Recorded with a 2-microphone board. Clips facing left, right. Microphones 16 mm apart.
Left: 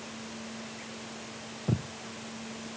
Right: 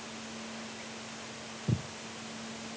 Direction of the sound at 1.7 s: 35° left (ahead or behind).